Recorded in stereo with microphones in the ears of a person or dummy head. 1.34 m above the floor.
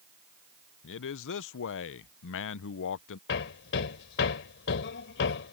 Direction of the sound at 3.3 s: 60° left (ahead or behind).